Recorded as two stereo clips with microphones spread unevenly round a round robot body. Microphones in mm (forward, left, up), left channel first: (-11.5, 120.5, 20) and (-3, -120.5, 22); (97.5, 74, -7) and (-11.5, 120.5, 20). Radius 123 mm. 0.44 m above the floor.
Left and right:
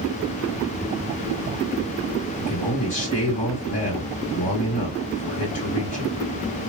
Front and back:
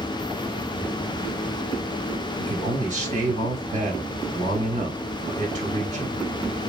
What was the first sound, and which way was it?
A man speaking, 145° left.